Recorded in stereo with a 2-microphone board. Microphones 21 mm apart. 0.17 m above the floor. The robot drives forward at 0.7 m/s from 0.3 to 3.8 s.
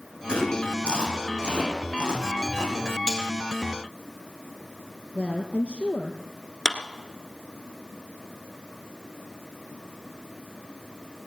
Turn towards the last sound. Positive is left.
turn(degrees=-10)  # may be behind; listen again after turning